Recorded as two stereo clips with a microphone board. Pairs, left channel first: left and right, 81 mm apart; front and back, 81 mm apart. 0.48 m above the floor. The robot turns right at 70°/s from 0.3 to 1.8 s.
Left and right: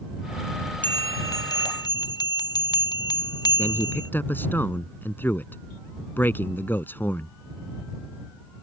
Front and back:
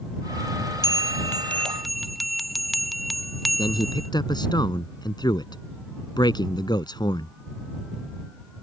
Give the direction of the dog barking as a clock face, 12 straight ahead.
I don't hear a dog barking.